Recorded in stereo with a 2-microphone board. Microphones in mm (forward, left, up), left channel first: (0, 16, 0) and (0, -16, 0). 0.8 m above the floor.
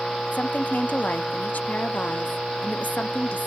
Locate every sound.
0.3 s a woman speaking: 60° left (ahead or behind), 0.9 m